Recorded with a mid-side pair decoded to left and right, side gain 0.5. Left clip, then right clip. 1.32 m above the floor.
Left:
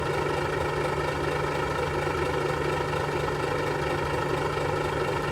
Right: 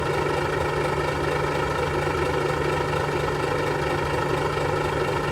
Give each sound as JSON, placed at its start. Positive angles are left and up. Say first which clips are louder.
{"t": 0.0, "sound": "a vehicle", "louder": "right 3 dB", "azimuth_deg": -20}